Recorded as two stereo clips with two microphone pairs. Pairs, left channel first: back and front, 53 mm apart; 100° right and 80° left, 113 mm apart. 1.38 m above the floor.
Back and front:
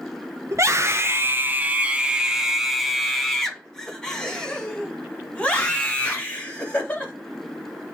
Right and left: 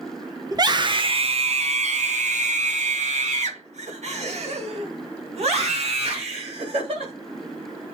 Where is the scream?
25° left, 1.0 m; by 7.1 s 115° left, 3.5 m.